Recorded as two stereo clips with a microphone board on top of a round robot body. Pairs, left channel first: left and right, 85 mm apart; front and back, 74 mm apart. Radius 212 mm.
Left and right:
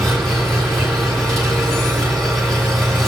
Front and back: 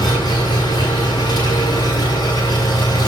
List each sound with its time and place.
0.0 s an engine running: straight ahead, 7 m